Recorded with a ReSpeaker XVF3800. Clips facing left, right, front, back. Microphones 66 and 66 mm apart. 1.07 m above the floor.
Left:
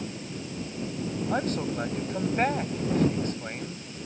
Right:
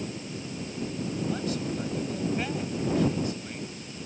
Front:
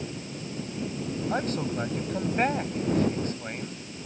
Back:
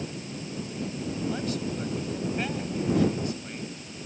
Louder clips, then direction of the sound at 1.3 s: Left 3 dB, front 2 dB; 45° left.